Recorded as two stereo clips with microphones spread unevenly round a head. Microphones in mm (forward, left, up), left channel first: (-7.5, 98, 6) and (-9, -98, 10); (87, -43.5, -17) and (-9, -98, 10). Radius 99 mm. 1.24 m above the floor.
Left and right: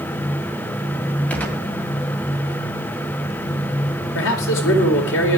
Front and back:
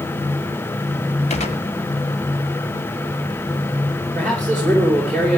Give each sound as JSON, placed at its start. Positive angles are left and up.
{"t": 1.3, "sound": "a gunshot", "azimuth_deg": 5, "distance_m": 2.0}
{"t": 4.2, "sound": "a man speaking", "azimuth_deg": 115, "distance_m": 4.0}